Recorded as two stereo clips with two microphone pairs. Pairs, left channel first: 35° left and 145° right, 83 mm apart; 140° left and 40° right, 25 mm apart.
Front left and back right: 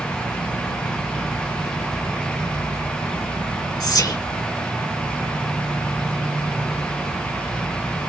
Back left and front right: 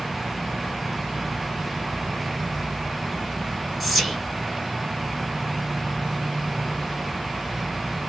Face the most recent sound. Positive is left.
turn(degrees=45)